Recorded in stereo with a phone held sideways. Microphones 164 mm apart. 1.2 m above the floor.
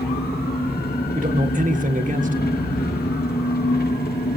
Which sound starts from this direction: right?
A man speaking, at 1.1 s.